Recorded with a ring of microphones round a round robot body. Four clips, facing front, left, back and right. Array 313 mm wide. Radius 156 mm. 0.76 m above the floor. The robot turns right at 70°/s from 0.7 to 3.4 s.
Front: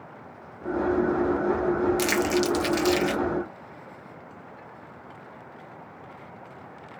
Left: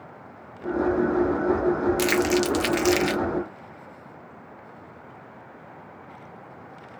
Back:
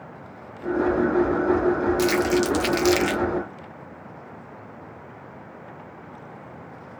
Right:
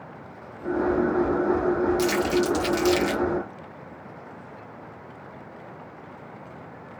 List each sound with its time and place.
2.0 s crumpling: 70° left, 0.7 m; by 3.2 s 155° left, 0.7 m